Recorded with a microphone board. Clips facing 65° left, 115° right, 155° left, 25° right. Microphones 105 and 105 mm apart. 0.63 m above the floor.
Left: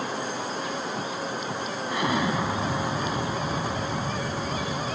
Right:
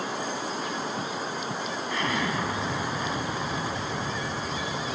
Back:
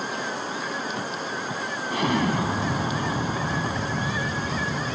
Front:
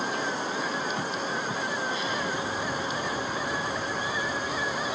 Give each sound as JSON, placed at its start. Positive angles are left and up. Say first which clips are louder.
{"t": 1.9, "sound": "an explosion", "louder": "left 4 dB, back 6 dB", "azimuth_deg": 140}